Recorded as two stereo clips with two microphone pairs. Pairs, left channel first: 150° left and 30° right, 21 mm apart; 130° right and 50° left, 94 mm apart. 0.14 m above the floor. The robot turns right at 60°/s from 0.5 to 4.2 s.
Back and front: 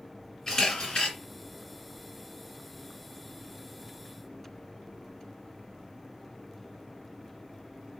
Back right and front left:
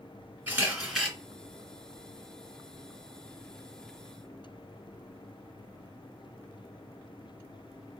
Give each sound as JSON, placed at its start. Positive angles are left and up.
{"t": 0.5, "sound": "a camera shutter", "azimuth_deg": 105, "distance_m": 2.0}